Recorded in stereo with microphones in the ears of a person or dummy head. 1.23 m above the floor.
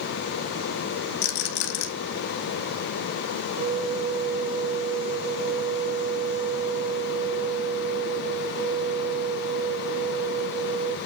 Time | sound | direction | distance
1.2 | a rattle | 65° left (ahead or behind) | 1.3 m
3.6 | a flute | 25° right (ahead or behind) | 1.0 m